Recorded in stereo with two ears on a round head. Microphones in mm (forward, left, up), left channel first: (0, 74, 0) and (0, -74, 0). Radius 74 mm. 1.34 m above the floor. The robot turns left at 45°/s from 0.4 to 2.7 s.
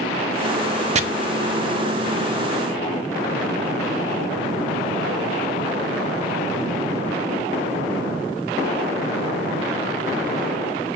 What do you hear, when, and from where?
0.9 s chopping: 45° right (ahead or behind), 0.6 m